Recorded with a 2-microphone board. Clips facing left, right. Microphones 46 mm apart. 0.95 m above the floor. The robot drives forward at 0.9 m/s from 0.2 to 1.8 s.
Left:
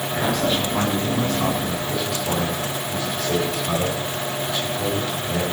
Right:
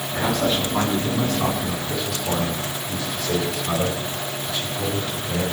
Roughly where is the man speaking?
Centre.